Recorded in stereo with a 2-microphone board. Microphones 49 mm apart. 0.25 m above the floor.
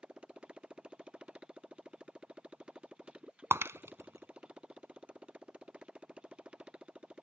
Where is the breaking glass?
65° right (ahead or behind).